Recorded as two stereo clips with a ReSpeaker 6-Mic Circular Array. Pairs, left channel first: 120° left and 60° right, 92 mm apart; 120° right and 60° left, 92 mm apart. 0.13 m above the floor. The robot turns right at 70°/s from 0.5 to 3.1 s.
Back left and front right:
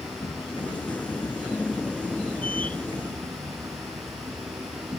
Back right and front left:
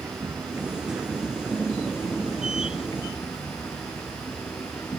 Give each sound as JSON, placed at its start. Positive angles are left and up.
{"t": 0.0, "sound": "an insect", "azimuth_deg": 110, "distance_m": 4.0}